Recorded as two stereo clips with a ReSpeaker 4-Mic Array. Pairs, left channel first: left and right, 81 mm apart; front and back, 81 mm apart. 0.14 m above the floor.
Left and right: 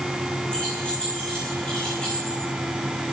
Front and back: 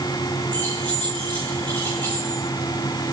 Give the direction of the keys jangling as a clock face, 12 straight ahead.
6 o'clock.